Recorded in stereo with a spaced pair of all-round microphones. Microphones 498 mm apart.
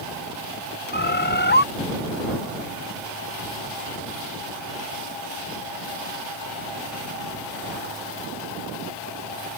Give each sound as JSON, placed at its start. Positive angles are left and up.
{"t": 0.9, "sound": "a bird", "side_deg": 20}